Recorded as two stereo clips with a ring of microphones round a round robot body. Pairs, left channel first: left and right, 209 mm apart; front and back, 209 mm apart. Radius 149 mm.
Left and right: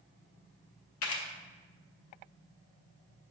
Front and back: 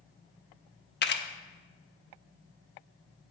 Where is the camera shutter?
45° left, 0.6 m.